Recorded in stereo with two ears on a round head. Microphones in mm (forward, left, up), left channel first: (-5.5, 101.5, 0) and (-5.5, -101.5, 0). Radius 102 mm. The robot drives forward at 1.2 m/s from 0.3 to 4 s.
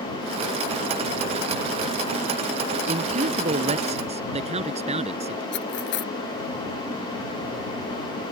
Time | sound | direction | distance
2.9 | a man speaking | 35° right (ahead or behind) | ?
5.5 | cutlery clinking | 55° left (ahead or behind) | ?